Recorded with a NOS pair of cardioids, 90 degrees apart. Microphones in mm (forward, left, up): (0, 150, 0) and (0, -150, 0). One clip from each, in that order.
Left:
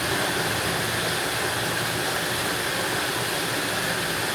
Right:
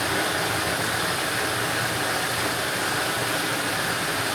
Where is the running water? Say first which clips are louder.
Right 1 dB; straight ahead, 1.9 m.